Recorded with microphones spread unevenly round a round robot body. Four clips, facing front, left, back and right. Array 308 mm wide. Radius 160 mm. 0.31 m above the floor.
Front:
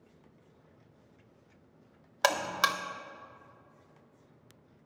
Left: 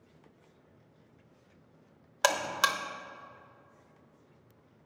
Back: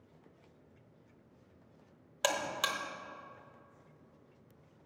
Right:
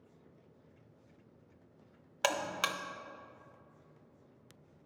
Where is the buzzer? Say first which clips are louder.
Left 5 dB, front 6 dB; 55° left, 0.7 m.